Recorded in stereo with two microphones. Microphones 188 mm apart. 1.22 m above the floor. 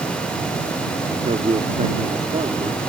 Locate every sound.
1.1 s a man speaking: 35° right (ahead or behind)